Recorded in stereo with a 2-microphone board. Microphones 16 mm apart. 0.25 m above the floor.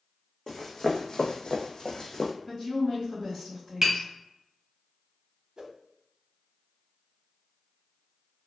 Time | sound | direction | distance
0.5 | running footsteps | 35° left (ahead or behind) | 0.8 m
2.5 | a woman speaking | 20° left (ahead or behind) | 1.9 m
3.8 | tapping | 35° right (ahead or behind) | 1.4 m
5.6 | a whoosh | 55° right (ahead or behind) | 0.5 m